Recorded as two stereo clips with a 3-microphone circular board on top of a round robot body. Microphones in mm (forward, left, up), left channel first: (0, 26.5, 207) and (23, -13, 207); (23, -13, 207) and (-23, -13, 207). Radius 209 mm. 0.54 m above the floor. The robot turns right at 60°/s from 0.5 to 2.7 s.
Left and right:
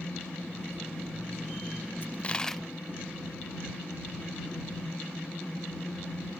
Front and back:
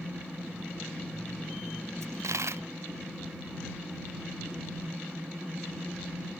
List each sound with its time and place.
2.0 s a dropped coin: 170° left; by 2.6 s 150° right